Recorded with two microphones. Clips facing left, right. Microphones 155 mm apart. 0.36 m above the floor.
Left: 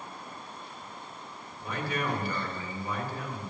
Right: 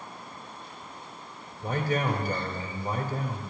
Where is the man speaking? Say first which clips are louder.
Right 5 dB; 50° right (ahead or behind), 2 m.